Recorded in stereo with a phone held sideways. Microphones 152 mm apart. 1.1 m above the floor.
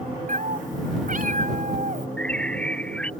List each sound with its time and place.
0.3 s a cat meowing: 60° right (ahead or behind)
2.2 s a bird: 5° left (ahead or behind)